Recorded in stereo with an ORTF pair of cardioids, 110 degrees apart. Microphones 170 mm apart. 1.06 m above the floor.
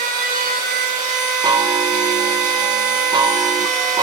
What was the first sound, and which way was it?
A machine running, 60° right.